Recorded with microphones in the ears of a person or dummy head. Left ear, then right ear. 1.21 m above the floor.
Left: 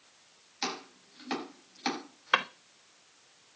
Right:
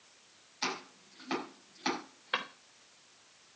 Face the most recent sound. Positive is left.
turn(degrees=35)  # may be behind; listen again after turning